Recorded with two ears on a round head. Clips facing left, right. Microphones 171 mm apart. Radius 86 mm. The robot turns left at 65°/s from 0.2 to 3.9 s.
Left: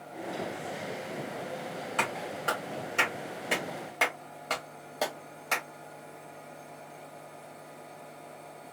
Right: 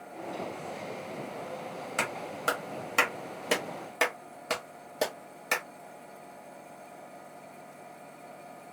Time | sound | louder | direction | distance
2.0 | a clap | left 1 dB | 25° right (ahead or behind) | 1.4 m